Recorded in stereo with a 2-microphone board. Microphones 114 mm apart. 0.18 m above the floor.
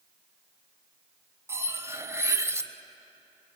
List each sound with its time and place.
1.5 s cutlery clinking: 25° right (ahead or behind), 0.8 m